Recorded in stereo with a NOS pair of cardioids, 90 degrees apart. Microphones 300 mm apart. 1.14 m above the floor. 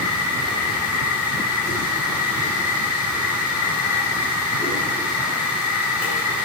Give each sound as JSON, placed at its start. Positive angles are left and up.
{"t": 0.0, "sound": "a machine running", "azimuth_deg": 55, "distance_m": 4.5}